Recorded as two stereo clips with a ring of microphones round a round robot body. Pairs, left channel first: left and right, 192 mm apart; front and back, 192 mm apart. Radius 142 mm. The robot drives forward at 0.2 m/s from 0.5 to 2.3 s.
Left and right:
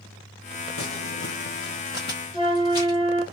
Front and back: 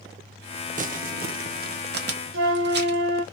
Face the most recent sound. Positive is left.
turn(degrees=170)